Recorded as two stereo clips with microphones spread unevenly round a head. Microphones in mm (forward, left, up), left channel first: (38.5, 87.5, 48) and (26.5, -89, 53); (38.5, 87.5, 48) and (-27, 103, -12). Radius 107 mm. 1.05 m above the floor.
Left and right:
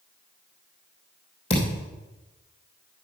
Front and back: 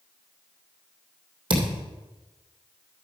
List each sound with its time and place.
1.5 s a thud: 150° left, 3 m